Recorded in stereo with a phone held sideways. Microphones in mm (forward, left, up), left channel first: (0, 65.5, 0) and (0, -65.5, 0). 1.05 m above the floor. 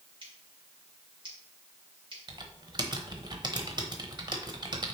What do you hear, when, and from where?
0.2 s scissors: 45° right (ahead or behind), 2.5 m
2.3 s typing on a keyboard: 35° right (ahead or behind), 1.0 m